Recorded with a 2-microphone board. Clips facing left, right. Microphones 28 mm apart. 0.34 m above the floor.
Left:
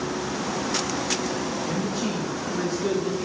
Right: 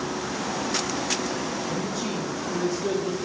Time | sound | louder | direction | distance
1.7 | a man speaking | left 2 dB | 65° left (ahead or behind) | 3.5 m